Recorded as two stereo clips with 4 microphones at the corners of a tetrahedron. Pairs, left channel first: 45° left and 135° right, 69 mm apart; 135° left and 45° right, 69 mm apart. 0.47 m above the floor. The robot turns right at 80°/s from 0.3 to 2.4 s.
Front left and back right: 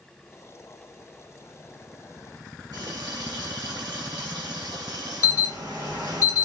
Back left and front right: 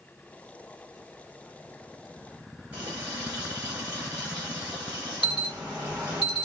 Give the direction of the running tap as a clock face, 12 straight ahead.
4 o'clock.